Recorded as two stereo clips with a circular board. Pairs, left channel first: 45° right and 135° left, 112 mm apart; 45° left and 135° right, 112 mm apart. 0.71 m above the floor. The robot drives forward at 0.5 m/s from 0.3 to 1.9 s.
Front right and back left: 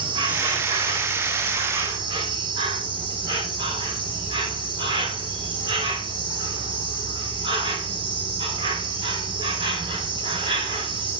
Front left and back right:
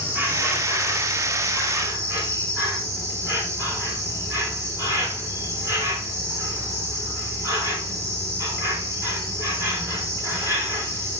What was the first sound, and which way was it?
An insect, 160° left.